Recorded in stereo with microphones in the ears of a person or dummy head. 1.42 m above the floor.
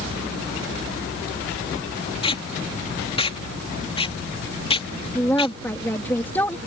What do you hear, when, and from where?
2.2 s tape being pulled: 35° left (ahead or behind)
5.2 s a woman speaking: 10° left (ahead or behind)